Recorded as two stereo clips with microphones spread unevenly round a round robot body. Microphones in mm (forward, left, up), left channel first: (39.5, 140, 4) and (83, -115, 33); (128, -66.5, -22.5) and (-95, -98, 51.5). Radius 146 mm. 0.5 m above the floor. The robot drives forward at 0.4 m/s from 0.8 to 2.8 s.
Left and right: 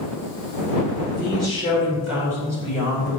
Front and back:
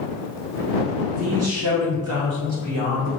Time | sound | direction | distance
1.1 | a man speaking | 155° right | 1.8 m